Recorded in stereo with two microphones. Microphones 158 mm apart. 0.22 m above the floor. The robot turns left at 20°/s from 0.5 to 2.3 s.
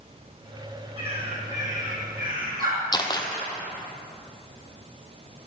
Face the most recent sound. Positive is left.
turn(degrees=25)  # may be behind; listen again after turning